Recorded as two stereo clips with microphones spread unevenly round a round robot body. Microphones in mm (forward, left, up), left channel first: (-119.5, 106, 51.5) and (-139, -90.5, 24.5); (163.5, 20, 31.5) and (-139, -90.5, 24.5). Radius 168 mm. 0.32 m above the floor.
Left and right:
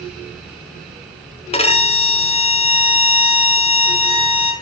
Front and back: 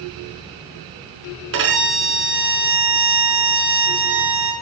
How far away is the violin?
About 4 m.